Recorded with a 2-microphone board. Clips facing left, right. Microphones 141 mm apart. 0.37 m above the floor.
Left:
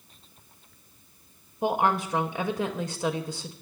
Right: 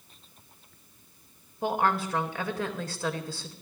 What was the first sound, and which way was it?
A woman speaking, 20° left (ahead or behind).